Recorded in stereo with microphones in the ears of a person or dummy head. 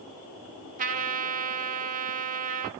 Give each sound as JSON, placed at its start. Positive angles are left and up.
{"t": 0.8, "sound": "a trumpet", "side_deg": -35, "distance_m": 0.6}